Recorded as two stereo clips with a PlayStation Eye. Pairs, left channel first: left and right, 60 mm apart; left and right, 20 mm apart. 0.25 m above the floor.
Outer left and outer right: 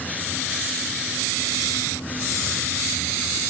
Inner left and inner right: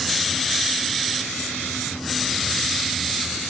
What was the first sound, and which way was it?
Only background noise.